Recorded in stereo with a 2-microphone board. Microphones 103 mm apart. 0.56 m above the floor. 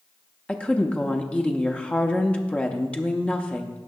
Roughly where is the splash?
I don't hear a splash.